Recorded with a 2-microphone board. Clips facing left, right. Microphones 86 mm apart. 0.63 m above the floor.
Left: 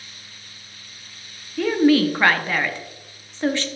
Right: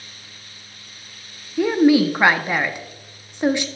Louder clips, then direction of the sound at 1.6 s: Right 2 dB; 15° right (ahead or behind).